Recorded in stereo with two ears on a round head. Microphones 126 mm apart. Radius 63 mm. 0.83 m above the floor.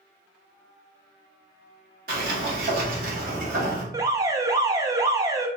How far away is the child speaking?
No child speaking in this recording.